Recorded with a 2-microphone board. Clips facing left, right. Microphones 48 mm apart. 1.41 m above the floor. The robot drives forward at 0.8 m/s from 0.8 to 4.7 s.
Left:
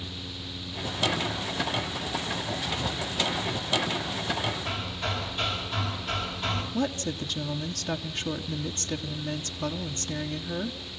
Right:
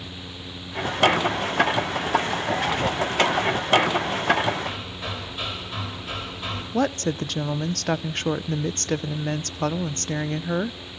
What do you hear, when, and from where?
4.7 s hammering: 10° right (ahead or behind), 4.5 m
6.7 s a woman speaking: 55° right (ahead or behind), 0.7 m